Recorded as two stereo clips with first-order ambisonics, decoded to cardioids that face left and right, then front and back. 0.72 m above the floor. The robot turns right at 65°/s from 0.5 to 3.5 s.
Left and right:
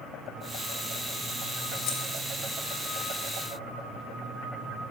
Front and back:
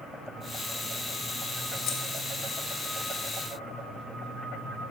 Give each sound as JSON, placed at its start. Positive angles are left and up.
{"t": 1.9, "sound": "keys jangling", "azimuth_deg": 45, "distance_m": 1.1}